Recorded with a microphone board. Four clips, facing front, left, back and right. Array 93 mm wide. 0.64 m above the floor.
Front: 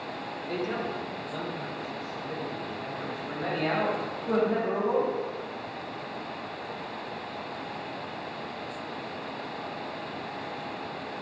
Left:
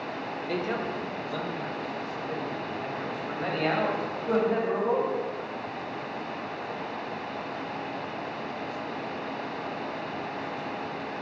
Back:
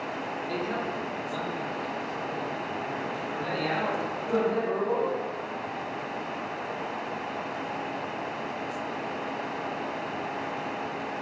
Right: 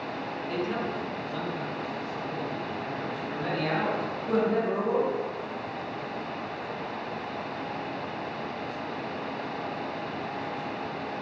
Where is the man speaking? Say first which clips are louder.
Even, front 1 dB; 80° left, 3 m; by 5.1 s 60° left, 5 m.